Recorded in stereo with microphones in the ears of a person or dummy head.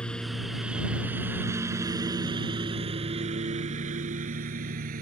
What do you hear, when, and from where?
0.0 s a lawn mower: 5° left (ahead or behind); by 5.0 s 45° right (ahead or behind)